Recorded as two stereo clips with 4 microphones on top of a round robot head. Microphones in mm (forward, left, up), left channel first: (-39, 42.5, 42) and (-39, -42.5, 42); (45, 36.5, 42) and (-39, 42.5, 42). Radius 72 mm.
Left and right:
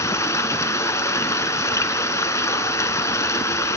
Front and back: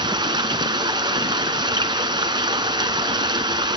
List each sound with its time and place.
0.0 s running water: 145° left, 1.6 m